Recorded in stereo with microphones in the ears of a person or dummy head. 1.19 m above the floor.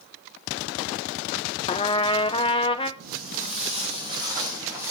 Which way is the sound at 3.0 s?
45° right (ahead or behind).